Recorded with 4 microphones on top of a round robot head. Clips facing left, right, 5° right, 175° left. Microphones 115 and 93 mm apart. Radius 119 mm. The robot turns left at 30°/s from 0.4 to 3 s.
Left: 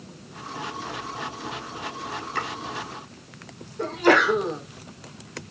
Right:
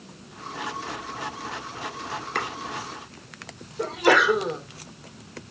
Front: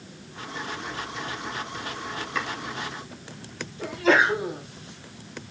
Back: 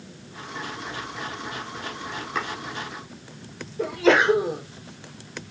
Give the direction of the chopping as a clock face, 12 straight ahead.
4 o'clock.